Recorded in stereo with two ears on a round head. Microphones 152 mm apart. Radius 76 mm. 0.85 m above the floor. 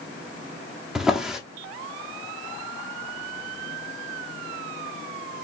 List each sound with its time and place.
0.9 s a drawer: 5° right (ahead or behind), 0.8 m